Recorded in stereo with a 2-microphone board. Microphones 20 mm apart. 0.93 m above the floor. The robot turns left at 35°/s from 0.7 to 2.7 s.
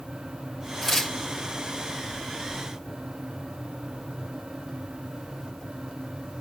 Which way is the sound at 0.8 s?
5° left (ahead or behind).